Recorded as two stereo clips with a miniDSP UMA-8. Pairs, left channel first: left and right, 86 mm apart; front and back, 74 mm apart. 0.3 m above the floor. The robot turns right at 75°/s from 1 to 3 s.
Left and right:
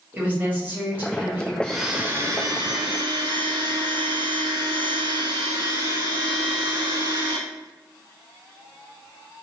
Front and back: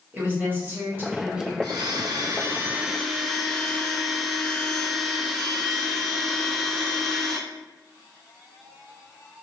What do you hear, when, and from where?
0.1 s a woman speaking: 145° right, 1.1 m; by 1.5 s 105° right, 1.1 m
1.6 s a blender: 170° left, 0.5 m; by 7.4 s 90° right, 0.5 m